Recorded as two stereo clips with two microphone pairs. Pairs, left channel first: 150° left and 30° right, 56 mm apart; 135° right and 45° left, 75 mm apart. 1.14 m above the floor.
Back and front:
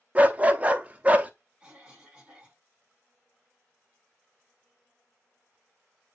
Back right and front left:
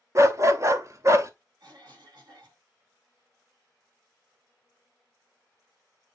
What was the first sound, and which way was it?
A dog barking, 20° left.